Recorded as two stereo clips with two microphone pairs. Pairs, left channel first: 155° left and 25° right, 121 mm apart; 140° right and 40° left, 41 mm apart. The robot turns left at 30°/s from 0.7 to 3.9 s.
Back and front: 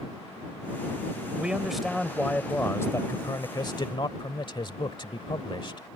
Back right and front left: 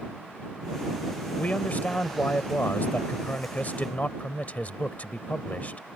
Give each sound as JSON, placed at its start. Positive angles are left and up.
{"t": 1.4, "sound": "a man speaking", "azimuth_deg": -100}